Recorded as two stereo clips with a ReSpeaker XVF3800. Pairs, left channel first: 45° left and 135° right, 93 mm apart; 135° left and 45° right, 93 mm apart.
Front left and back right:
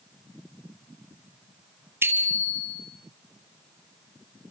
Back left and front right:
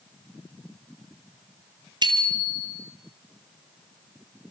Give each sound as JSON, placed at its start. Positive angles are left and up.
{"t": 2.0, "sound": "a bicycle bell", "azimuth_deg": -75, "distance_m": 2.0}